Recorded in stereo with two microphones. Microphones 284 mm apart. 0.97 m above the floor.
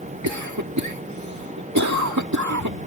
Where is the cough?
80° right.